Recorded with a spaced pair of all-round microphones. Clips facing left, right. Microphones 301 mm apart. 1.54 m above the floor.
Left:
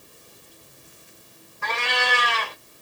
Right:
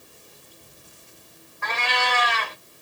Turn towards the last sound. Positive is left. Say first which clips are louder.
# left 1 dB
turn(degrees=35)  # may be behind; listen again after turning